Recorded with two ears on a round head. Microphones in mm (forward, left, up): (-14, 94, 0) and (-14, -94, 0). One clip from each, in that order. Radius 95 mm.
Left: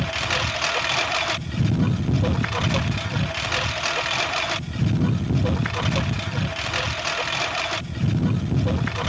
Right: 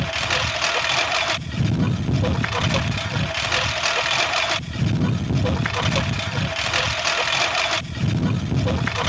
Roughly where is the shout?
I don't hear a shout.